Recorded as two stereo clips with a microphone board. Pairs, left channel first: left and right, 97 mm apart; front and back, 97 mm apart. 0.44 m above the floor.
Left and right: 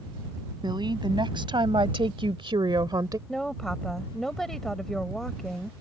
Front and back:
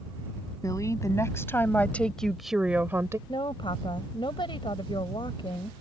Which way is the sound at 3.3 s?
5° left.